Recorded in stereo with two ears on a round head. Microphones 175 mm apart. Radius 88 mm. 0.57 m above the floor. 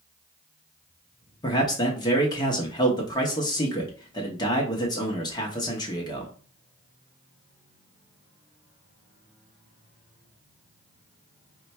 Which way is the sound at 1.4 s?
20° left (ahead or behind).